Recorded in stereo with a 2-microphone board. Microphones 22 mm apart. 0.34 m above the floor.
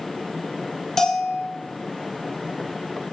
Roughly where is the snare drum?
No snare drum in this recording.